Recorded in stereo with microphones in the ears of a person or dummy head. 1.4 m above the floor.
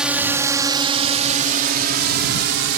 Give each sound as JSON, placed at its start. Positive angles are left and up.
{"t": 0.0, "sound": "a drone", "side_deg": -5}